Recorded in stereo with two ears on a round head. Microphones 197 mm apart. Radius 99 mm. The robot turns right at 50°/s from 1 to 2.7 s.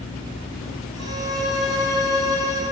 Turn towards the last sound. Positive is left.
turn(degrees=105)